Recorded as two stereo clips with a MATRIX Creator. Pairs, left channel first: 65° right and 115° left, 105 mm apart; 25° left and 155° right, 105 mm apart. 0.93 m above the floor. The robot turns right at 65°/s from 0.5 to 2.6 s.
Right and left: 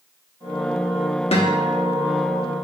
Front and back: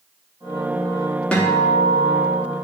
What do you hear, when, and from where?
1.3 s a guitar: 55° right, 0.9 m; by 2.4 s 15° left, 0.9 m